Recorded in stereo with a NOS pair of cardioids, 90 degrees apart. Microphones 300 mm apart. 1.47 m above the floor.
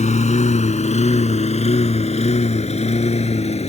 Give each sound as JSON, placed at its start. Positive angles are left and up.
{"t": 0.0, "sound": "a lawn mower", "azimuth_deg": 25}